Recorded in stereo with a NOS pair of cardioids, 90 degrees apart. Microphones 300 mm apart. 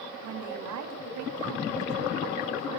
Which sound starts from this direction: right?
A woman speaking, at 0.2 s.